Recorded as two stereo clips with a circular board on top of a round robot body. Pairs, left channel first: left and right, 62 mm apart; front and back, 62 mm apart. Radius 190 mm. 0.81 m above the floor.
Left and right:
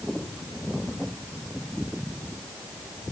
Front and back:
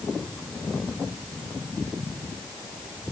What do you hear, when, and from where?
Only background noise.